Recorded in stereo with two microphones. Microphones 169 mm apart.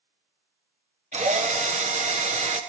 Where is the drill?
45° right (ahead or behind), 1.2 m.